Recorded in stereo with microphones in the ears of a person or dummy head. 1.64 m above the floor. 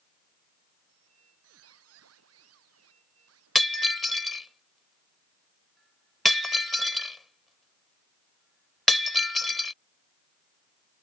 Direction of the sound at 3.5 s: Centre (ahead or behind).